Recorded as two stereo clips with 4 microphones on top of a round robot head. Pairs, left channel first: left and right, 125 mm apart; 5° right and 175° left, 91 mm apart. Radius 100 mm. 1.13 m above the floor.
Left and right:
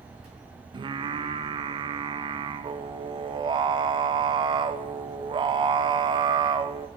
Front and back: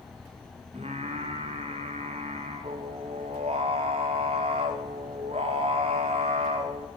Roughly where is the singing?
Behind right.